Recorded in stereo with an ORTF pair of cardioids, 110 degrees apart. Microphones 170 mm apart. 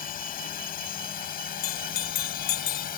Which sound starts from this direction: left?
A bell, at 1.6 s.